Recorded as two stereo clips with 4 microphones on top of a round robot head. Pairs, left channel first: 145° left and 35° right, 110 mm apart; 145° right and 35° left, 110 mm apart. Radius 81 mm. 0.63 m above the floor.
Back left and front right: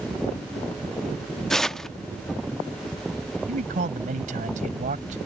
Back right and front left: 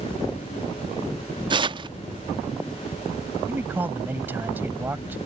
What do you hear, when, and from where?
1.5 s tearing paper: 60° left
3.5 s a man speaking: 35° right